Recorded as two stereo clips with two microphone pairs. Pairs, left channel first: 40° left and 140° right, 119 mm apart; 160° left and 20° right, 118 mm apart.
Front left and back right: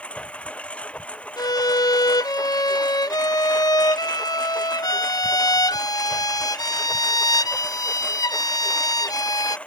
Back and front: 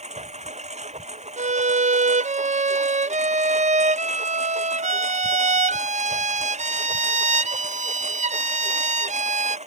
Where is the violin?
15° right.